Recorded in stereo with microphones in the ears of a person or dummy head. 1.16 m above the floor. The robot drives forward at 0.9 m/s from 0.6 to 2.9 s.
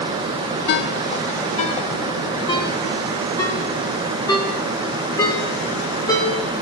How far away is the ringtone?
About 0.6 m.